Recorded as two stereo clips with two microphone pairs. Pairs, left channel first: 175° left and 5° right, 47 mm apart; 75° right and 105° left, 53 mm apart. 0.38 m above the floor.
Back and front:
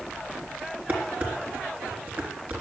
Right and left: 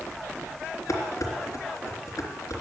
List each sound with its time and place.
0.9 s dishes clattering: 50° right, 3.5 m